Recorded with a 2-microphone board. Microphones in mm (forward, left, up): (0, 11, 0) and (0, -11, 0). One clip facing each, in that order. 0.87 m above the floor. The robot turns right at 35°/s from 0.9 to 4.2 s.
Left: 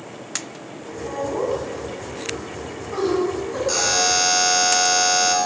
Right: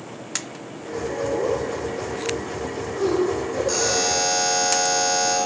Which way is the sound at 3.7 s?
15° left (ahead or behind).